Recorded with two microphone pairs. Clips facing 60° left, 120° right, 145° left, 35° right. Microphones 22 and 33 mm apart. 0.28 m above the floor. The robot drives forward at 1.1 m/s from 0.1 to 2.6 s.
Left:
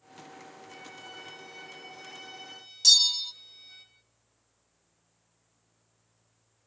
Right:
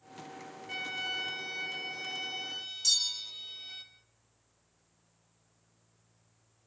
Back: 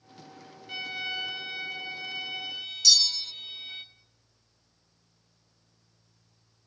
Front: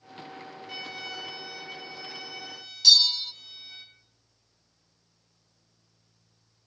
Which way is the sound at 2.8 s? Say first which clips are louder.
Left 9 dB, front 4 dB; 15° left.